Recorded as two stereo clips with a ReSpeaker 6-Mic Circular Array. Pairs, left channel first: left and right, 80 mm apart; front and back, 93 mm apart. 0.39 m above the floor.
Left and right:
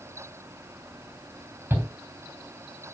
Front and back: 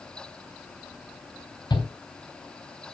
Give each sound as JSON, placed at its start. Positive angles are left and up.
{"t": 1.7, "sound": "a shout", "azimuth_deg": -30, "distance_m": 3.0}